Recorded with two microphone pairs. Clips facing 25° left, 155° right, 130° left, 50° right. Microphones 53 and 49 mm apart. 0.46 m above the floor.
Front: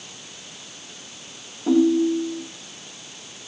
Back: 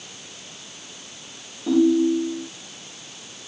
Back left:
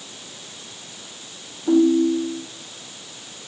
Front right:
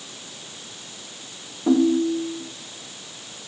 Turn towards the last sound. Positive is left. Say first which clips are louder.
# even, back left 2 dB
turn(degrees=-45)